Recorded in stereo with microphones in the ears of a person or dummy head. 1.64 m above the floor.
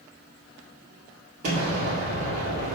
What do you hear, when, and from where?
1.4 s an explosion: 50° right (ahead or behind), 2.5 m